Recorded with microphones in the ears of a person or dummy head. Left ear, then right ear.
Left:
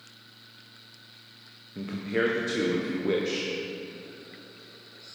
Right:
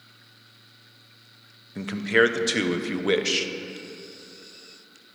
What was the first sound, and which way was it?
A man speaking, 50° right (ahead or behind).